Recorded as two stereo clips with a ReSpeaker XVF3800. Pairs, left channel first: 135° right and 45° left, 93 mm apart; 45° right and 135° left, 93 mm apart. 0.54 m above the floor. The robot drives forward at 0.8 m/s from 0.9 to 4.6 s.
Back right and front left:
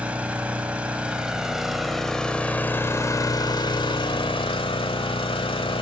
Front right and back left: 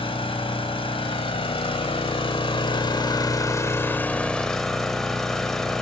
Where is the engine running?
30° right, 2.5 m; by 5.8 s 130° right, 1.6 m.